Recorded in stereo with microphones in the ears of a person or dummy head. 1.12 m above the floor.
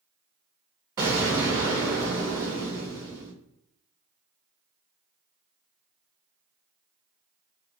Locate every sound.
1.0 s an explosion: 20° right (ahead or behind), 0.5 m